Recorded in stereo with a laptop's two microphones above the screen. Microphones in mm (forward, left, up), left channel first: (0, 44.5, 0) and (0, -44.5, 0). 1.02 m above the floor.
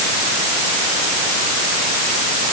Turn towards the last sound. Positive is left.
No sound to turn to.